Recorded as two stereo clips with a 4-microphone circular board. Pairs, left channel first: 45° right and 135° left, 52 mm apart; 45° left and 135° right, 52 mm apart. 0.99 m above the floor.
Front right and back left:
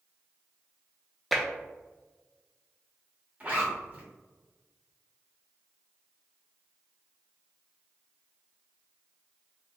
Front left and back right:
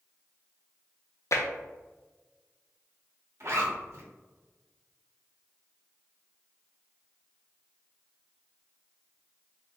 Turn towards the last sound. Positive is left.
turn(degrees=-160)